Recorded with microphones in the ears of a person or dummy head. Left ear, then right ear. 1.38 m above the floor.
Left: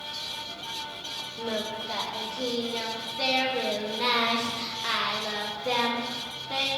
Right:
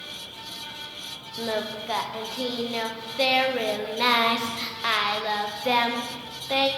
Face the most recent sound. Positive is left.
turn(degrees=-30)  # may be behind; listen again after turning